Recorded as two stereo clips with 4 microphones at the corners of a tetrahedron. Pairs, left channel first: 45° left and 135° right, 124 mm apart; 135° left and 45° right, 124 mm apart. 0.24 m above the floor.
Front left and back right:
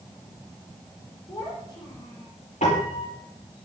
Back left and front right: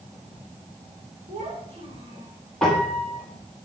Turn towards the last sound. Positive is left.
turn(degrees=50)